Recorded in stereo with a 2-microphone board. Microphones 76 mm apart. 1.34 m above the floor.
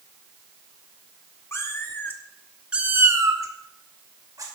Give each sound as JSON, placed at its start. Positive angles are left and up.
{"t": 1.5, "sound": "a cat meowing", "side_deg": 40, "distance_m": 1.5}